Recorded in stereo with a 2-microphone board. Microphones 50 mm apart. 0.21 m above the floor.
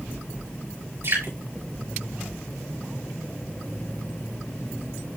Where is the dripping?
75° right (ahead or behind), 6.5 m.